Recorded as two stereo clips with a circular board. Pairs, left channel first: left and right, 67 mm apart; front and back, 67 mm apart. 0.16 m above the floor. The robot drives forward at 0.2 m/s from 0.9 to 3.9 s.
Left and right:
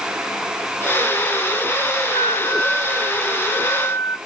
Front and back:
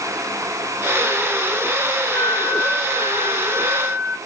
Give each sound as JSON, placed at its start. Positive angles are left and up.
{"t": 2.1, "sound": "a flute", "azimuth_deg": 105, "distance_m": 1.4}